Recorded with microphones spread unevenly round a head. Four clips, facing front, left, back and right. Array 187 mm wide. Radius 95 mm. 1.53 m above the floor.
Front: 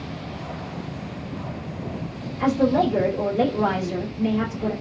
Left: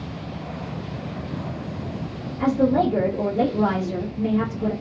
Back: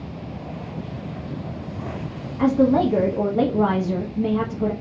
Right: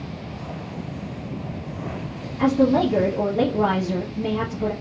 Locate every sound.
2.4 s a woman speaking: 165° right, 0.9 m